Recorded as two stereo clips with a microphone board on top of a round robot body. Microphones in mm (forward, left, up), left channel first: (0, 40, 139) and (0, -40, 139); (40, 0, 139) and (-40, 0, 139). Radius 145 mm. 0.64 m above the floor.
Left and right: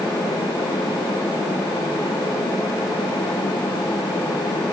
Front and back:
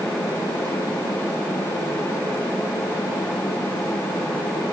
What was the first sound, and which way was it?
Only background noise.